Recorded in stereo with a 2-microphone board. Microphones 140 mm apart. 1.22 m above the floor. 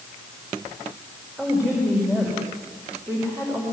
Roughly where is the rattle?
I don't hear a rattle.